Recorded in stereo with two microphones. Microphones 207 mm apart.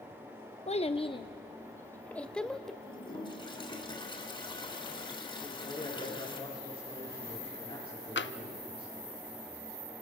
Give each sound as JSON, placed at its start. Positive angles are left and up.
{"t": 0.7, "sound": "a child speaking", "side_deg": 35, "distance_m": 0.8}
{"t": 2.8, "sound": "a toilet flushing", "side_deg": 25, "distance_m": 3.0}
{"t": 5.4, "sound": "a man speaking", "side_deg": 25, "distance_m": 9.5}
{"t": 8.2, "sound": "tapping", "side_deg": 70, "distance_m": 0.6}